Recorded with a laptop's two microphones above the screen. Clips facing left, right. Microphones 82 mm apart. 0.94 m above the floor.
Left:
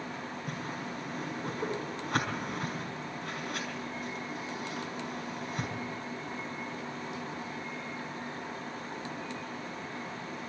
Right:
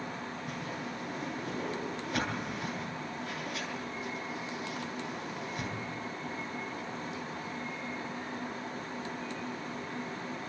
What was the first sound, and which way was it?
A whoosh, 70° left (ahead or behind).